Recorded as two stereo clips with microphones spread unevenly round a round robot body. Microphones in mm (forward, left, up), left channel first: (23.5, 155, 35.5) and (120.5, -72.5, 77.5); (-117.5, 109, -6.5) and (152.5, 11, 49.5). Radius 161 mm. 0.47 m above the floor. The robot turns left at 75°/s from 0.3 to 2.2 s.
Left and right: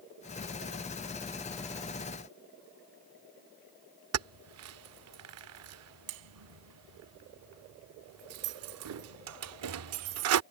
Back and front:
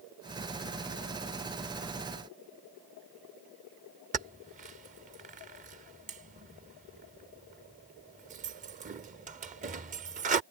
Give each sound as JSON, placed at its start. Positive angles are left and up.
{"t": 4.1, "sound": "keys jangling", "azimuth_deg": -90}